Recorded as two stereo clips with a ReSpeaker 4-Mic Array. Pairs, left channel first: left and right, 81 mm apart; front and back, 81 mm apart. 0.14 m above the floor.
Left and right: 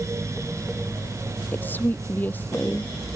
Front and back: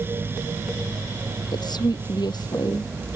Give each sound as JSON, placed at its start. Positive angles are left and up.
{"t": 1.5, "sound": "a woman speaking", "azimuth_deg": 25}